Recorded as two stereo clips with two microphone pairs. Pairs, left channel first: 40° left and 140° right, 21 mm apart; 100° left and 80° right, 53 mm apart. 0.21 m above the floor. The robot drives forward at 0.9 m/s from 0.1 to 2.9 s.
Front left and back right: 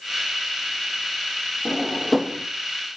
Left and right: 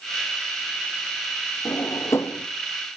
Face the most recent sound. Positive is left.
turn(degrees=150)